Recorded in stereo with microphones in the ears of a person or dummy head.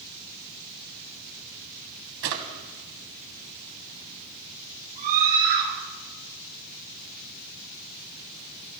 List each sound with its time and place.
2.2 s a drawer: 60° right (ahead or behind), 2.0 m
5.0 s a scream: 40° right (ahead or behind), 6.5 m